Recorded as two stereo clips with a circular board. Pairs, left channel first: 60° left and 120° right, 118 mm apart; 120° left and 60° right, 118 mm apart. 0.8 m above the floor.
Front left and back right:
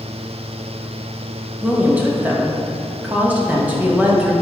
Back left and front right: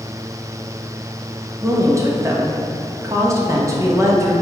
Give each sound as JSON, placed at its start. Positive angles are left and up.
{"t": 1.6, "sound": "a woman speaking", "azimuth_deg": -60, "distance_m": 1.0}